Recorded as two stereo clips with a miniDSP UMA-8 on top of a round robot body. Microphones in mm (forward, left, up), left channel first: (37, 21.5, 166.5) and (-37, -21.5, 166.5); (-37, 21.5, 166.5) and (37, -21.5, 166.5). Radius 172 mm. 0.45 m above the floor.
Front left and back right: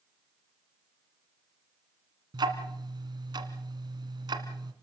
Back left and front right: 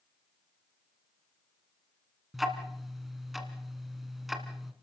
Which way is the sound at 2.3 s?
120° right.